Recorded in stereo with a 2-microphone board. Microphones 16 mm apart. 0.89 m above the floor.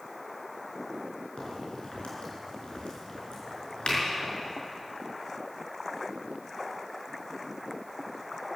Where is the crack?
85° left, 4.5 m.